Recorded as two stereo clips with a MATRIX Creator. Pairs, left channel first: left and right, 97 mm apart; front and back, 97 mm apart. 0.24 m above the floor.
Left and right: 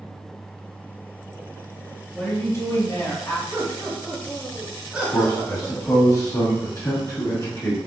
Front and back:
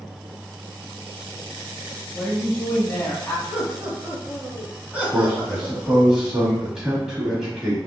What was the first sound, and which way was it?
A woman speaking, 70° left.